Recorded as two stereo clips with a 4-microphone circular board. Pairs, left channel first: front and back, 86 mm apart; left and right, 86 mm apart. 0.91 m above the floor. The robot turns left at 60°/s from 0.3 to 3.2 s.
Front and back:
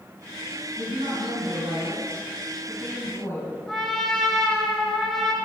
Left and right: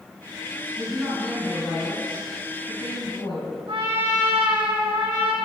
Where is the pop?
I don't hear a pop.